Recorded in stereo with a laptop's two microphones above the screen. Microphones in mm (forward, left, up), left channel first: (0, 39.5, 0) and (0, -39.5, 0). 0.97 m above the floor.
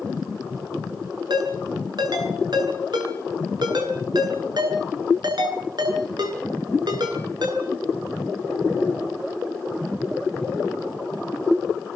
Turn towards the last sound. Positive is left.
turn(degrees=-65)  # may be behind; listen again after turning